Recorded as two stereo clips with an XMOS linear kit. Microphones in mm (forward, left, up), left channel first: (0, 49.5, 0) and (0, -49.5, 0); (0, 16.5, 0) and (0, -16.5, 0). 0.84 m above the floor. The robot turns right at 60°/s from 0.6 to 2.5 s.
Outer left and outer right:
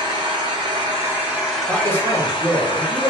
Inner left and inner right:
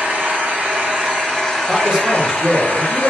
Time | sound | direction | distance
0.0 | an engine running | 55° right | 1.4 m
1.7 | a man speaking | 40° right | 1.4 m